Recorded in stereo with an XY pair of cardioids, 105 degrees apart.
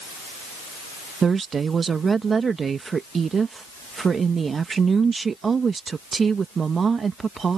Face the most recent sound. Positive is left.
turn(degrees=-40)